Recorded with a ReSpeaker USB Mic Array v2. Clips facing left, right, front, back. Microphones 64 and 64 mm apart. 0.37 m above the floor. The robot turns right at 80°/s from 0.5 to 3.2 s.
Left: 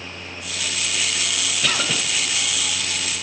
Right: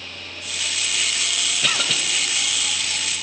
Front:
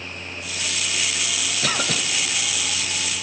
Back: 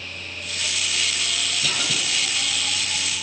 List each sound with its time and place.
1.6 s a cough: 5° right, 2.0 m; by 2.0 s 25° left, 2.0 m